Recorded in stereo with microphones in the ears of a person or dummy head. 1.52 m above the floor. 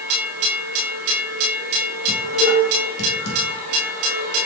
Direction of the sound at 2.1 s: 75° left (ahead or behind).